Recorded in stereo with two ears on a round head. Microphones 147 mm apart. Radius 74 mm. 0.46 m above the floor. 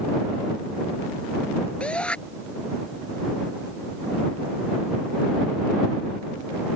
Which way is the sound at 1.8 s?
5° left (ahead or behind).